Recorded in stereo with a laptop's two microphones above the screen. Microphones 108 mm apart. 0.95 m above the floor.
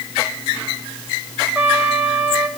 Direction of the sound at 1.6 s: 20° right (ahead or behind).